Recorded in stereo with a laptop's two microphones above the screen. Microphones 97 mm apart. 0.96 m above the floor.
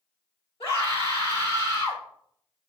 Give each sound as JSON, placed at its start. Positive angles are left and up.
{"t": 0.6, "sound": "a scream", "side_deg": 75, "distance_m": 4.5}